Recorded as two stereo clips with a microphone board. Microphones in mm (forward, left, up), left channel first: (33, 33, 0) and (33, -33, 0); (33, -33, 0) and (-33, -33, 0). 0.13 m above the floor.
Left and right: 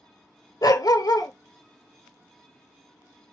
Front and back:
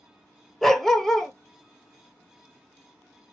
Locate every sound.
0.6 s a dog barking: 85° left, 0.6 m